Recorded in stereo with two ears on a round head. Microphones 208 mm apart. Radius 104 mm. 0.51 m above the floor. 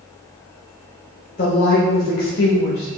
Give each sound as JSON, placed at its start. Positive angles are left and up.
{"t": 1.4, "sound": "a woman speaking", "side_deg": 40, "distance_m": 1.5}